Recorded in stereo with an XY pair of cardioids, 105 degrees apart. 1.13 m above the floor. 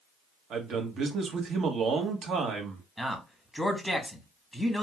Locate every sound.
0.5 s a man speaking: 65° right, 1.0 m
3.0 s a man speaking: 10° right, 1.0 m